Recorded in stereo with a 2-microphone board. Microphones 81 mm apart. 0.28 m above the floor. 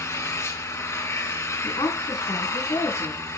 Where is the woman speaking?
60° left (ahead or behind), 3.5 m.